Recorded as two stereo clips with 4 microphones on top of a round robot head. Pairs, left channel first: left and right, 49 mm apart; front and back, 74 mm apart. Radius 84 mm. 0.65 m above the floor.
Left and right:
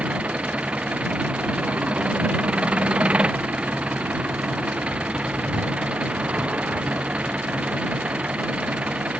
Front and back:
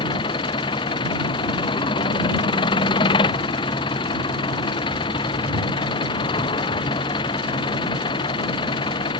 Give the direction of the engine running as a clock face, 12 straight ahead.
1 o'clock.